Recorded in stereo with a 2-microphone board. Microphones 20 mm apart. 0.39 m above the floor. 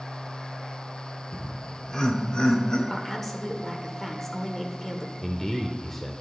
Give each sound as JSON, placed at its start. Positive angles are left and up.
{"t": 1.3, "sound": "laughter", "side_deg": 15, "distance_m": 1.0}
{"t": 2.9, "sound": "a woman speaking", "side_deg": 20, "distance_m": 1.1}
{"t": 5.2, "sound": "a man speaking", "side_deg": 15, "distance_m": 0.9}